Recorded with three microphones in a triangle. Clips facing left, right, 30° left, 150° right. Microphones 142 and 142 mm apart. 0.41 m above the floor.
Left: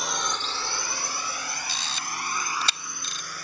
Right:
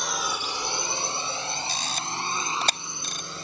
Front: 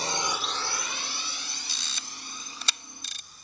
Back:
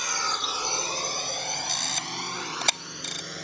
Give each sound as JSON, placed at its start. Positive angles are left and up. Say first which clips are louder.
{"t": 0.0, "sound": "a drone", "louder": "even, front 2 dB", "azimuth_deg": 5}
{"t": 1.7, "sound": "a camera shutter", "louder": "right 3 dB, back 10 dB", "azimuth_deg": -125}